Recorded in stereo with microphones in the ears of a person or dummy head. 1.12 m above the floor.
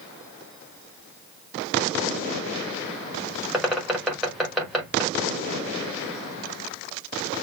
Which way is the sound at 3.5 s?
5° right (ahead or behind).